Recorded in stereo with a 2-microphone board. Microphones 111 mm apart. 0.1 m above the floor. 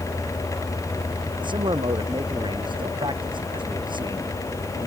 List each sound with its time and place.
1.4 s a man speaking: 45° right (ahead or behind)